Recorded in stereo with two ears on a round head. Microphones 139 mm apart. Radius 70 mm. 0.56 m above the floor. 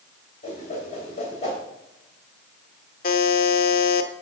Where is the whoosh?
45° left (ahead or behind), 3 m.